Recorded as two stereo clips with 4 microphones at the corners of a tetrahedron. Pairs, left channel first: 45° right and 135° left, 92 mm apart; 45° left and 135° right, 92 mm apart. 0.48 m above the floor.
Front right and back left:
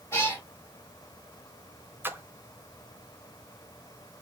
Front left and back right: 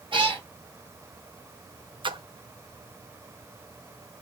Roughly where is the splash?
Behind.